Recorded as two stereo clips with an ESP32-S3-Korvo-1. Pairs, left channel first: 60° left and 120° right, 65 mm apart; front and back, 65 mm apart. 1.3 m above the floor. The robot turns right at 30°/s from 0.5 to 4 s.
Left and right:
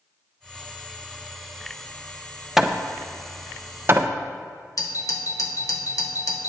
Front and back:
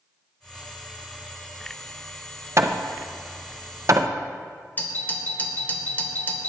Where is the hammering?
155° left, 0.5 m; by 4.1 s 160° right, 0.5 m.